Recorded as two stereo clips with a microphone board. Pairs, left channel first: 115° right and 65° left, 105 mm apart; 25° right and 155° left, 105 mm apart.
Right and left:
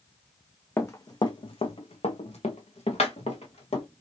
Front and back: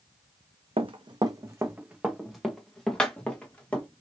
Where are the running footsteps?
Straight behind, 0.6 m; by 3.9 s 100° right, 1.8 m.